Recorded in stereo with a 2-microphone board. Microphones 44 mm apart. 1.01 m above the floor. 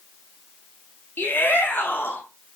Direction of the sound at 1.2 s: 50° left (ahead or behind).